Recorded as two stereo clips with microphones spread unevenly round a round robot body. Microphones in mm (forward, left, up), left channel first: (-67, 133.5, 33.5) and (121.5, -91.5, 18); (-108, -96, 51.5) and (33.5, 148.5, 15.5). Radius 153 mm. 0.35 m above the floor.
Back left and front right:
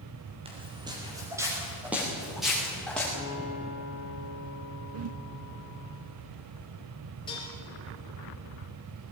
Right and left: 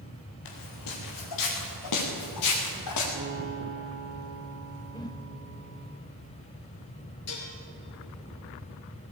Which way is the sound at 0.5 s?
125° right.